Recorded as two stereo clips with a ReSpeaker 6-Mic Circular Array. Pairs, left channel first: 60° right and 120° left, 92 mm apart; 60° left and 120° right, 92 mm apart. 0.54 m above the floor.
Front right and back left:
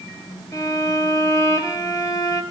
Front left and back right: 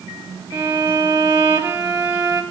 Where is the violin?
70° right, 1.4 m.